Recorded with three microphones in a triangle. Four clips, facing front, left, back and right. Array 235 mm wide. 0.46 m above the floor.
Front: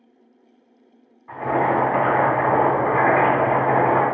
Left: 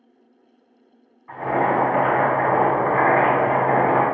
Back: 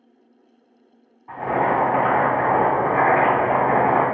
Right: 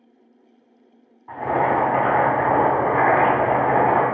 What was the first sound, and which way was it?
Boiling, 125° right.